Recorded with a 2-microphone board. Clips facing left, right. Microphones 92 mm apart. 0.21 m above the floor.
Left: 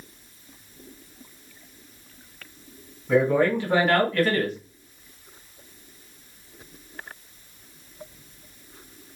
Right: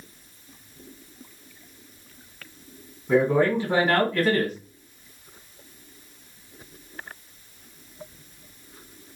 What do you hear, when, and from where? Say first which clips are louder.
3.1 s a man speaking: even; 5° right (ahead or behind), 1.7 m